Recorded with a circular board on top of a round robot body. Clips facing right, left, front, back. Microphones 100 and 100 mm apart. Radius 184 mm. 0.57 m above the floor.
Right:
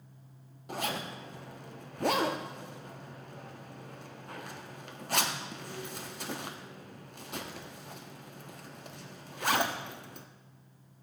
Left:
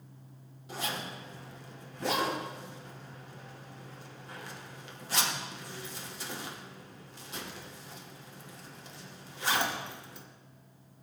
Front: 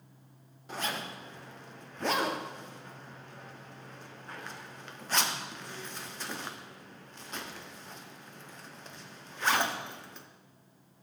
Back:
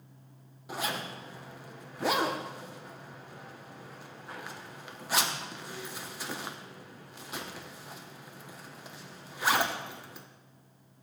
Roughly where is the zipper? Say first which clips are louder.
Right 2 dB, back 1 dB; right.